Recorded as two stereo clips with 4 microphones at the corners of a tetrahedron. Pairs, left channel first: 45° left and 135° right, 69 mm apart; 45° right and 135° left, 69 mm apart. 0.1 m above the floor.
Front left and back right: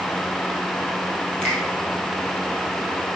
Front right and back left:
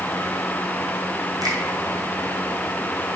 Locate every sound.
1.4 s a finger snap: 120° left, 2.5 m